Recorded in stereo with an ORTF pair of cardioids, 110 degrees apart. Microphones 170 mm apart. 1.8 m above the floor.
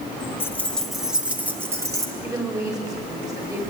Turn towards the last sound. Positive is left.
turn(degrees=-15)